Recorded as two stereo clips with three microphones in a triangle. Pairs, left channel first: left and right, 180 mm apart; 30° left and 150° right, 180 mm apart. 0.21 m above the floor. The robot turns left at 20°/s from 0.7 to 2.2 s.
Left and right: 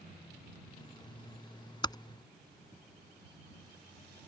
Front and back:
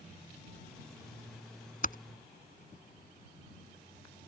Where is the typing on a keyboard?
30° left.